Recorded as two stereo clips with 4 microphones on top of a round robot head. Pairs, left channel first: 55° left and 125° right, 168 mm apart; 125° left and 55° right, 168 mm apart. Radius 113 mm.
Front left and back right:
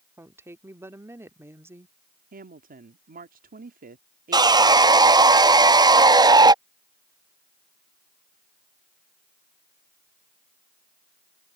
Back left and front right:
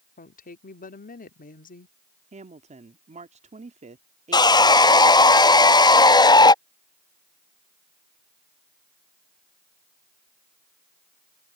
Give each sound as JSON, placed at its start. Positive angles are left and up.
{"t": 0.2, "sound": "a woman speaking", "azimuth_deg": 160}
{"t": 2.3, "sound": "a woman speaking", "azimuth_deg": -100}
{"t": 4.3, "sound": "sawing", "azimuth_deg": 180}